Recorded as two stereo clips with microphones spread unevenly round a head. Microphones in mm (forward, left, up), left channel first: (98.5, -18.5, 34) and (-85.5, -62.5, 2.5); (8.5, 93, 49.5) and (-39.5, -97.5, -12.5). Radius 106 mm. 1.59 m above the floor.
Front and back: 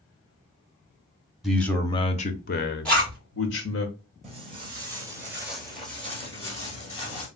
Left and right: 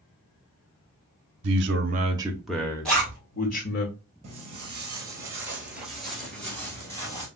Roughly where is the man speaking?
Right.